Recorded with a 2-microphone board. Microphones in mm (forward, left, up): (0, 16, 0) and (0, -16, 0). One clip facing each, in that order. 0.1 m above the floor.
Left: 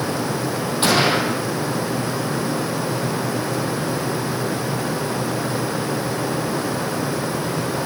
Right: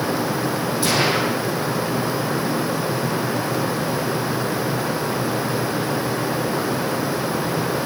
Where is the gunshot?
50° left (ahead or behind), 4.5 m.